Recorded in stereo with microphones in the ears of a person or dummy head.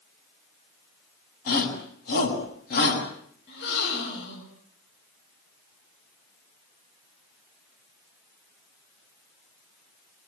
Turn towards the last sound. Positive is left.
turn(degrees=65)  # may be behind; listen again after turning